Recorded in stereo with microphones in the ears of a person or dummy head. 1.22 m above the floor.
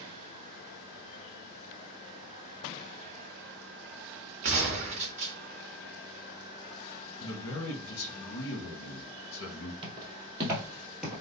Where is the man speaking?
65° left (ahead or behind), 1.1 m.